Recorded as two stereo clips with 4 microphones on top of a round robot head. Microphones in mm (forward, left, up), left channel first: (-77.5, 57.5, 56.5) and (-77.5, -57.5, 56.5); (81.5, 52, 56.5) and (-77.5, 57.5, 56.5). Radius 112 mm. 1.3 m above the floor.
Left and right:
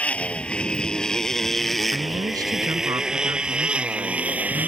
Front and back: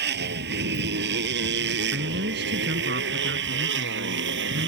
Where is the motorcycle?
170° left; by 4.7 s 165° right.